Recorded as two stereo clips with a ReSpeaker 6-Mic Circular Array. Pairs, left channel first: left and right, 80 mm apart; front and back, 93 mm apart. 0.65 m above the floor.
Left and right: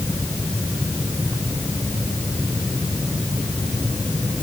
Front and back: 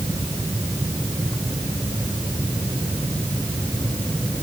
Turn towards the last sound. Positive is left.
No sound to turn to.